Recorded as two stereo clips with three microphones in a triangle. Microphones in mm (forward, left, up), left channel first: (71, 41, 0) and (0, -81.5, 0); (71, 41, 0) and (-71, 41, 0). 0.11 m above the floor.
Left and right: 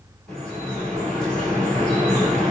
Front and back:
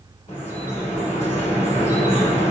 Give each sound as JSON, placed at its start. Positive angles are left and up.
{"t": 0.3, "sound": "dripping", "azimuth_deg": -20, "distance_m": 2.0}